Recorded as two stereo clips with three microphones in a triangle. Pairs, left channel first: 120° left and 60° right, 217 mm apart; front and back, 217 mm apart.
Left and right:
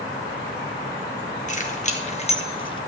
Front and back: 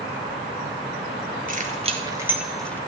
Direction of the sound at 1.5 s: 155° left.